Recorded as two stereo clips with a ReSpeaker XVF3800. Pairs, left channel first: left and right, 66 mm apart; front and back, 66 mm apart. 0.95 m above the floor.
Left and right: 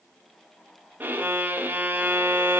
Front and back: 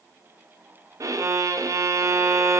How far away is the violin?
About 0.5 m.